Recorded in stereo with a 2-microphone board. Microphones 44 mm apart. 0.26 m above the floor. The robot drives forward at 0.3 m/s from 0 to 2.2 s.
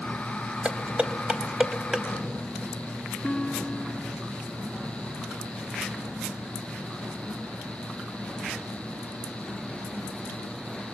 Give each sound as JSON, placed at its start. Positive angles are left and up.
{"t": 0.7, "sound": "dishes clattering", "side_deg": -30, "distance_m": 0.7}
{"t": 3.2, "sound": "a guitar", "side_deg": 15, "distance_m": 1.4}